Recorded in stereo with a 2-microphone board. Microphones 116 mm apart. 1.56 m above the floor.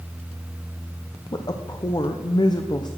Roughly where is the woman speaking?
Left.